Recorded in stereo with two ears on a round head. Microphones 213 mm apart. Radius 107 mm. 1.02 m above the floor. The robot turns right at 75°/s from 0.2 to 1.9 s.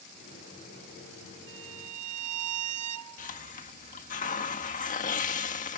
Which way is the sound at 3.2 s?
35° left (ahead or behind).